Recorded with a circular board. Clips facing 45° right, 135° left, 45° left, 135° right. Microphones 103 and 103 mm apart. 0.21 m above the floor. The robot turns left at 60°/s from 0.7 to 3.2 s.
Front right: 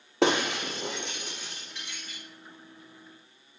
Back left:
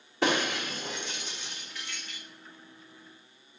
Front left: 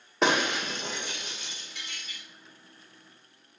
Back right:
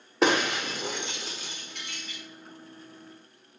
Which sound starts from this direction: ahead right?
Breaking glass, at 0.2 s.